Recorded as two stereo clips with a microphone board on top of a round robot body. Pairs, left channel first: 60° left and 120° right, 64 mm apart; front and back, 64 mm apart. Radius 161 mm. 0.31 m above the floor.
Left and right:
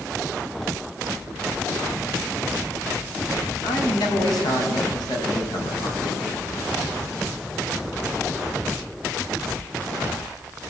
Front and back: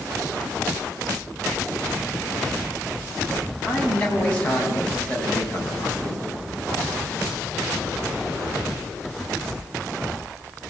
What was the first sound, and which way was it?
A man speaking, 70° left.